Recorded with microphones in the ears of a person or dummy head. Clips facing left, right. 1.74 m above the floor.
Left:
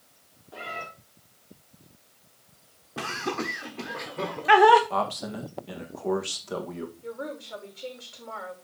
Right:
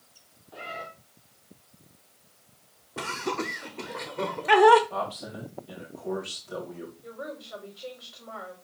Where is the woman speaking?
35° left (ahead or behind), 5 m.